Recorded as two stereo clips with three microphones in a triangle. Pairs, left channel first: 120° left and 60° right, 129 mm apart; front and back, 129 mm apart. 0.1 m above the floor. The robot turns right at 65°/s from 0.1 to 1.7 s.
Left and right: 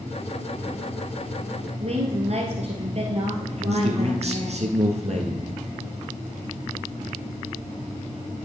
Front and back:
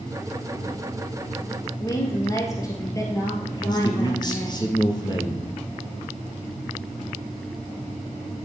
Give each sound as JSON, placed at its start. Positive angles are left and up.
{"t": 1.8, "sound": "a woman speaking", "azimuth_deg": -60, "distance_m": 1.9}
{"t": 3.6, "sound": "a man speaking", "azimuth_deg": -50, "distance_m": 2.0}